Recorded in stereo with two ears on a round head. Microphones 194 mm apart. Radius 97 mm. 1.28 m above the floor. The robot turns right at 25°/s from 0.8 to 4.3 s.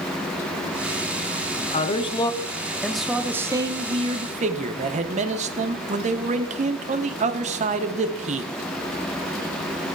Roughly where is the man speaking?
Behind left.